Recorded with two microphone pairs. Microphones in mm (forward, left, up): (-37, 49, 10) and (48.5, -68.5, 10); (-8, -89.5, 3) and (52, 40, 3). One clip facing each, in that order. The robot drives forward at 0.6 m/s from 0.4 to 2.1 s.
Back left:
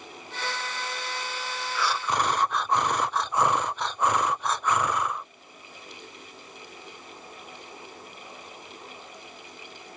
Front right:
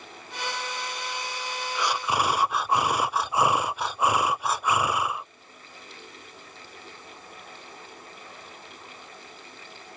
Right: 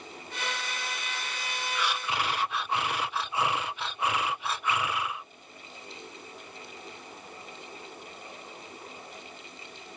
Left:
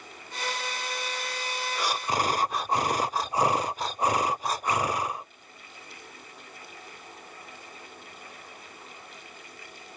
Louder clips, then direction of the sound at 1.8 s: Front right 1 dB, left 3 dB; 15° left.